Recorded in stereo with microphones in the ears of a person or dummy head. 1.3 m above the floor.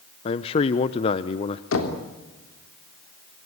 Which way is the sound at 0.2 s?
35° left (ahead or behind).